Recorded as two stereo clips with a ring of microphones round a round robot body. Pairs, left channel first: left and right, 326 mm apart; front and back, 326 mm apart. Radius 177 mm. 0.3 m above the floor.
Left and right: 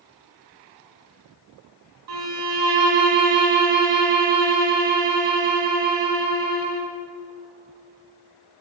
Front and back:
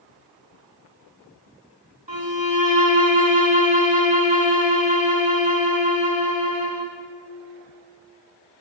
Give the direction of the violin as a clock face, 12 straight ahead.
4 o'clock.